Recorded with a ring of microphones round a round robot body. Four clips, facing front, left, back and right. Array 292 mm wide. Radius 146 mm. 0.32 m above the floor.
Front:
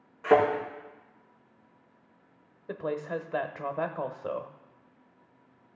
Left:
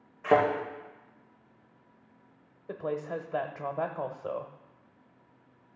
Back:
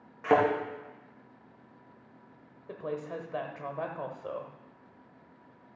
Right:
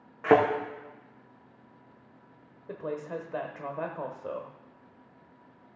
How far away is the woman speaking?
About 0.9 m.